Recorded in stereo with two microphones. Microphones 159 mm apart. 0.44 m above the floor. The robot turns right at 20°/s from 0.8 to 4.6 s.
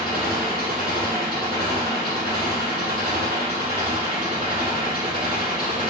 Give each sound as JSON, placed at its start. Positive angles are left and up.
{"t": 0.0, "sound": "an engine running", "azimuth_deg": -115, "distance_m": 1.7}